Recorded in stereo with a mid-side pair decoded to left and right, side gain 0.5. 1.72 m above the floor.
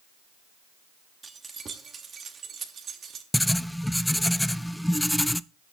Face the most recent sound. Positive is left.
turn(degrees=5)